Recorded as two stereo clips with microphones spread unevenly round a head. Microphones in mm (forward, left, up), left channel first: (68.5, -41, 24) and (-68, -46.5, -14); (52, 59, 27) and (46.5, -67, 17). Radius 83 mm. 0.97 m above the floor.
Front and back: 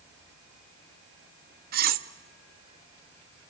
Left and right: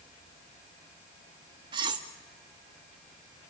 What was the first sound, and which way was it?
Cutlery clinking, 160° right.